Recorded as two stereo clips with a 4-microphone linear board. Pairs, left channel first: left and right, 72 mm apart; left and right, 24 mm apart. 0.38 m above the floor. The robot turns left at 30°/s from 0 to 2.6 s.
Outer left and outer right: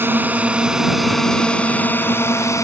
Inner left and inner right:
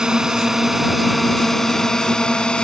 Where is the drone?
30° right (ahead or behind); by 2.6 s 45° left (ahead or behind).